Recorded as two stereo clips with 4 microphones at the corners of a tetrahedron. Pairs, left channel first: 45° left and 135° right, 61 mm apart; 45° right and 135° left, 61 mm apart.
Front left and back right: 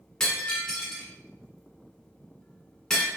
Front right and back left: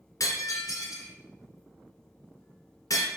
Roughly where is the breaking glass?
Ahead right.